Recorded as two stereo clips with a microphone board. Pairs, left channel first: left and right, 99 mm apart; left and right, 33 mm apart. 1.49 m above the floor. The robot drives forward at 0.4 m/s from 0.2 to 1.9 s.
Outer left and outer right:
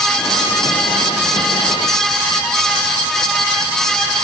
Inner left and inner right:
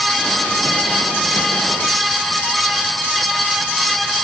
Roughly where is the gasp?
No gasp in this recording.